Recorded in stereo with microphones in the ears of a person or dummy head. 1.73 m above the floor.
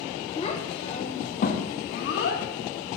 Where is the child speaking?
35° left (ahead or behind), 2 m; by 3.0 s 40° left (ahead or behind), 1.7 m.